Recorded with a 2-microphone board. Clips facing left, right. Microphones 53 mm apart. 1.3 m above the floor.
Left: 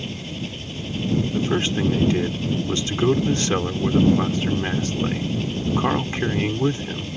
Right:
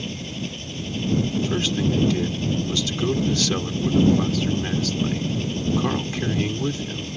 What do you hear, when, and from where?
0.0 s an engine running: 5° left (ahead or behind)
1.3 s a man speaking: 25° left (ahead or behind)